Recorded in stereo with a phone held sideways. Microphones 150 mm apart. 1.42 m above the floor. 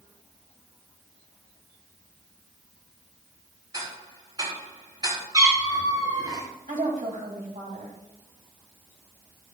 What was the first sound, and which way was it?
Ticking, 30° right (ahead or behind).